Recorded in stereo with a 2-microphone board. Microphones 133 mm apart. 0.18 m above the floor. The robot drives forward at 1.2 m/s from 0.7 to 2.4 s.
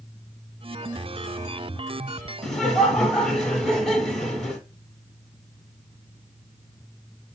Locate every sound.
2.4 s laughter: centre (ahead or behind), 1.1 m